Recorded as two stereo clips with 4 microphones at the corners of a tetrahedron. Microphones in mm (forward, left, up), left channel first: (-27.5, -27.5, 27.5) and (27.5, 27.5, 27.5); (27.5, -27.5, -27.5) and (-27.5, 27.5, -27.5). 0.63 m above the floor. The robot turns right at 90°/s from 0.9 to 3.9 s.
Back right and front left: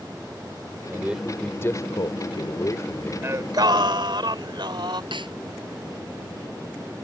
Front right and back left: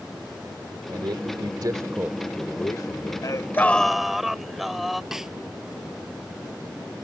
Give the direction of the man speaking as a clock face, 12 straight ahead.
9 o'clock.